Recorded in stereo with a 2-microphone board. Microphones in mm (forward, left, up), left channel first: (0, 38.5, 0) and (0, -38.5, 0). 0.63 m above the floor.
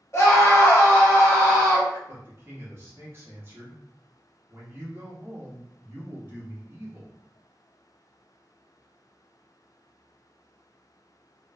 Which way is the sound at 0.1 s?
40° left (ahead or behind).